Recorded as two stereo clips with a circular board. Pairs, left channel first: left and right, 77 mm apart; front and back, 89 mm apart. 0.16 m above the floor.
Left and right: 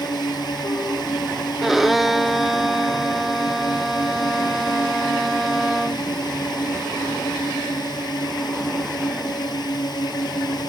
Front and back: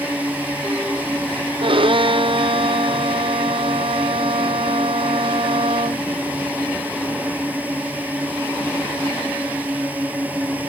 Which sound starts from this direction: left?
A drone, at 0.0 s.